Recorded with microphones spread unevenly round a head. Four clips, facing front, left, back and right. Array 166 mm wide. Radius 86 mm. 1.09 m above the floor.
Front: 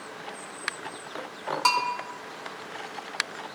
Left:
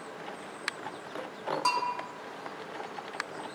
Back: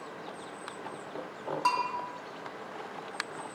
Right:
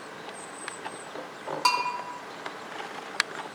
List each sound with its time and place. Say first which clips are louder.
1.6 s a bell: right 4 dB, front 4 dB; 30° right, 1.5 m